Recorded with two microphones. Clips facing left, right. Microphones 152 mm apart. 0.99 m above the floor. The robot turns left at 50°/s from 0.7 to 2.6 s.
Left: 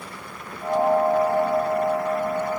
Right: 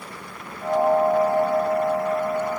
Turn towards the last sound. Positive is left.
No sound to turn to.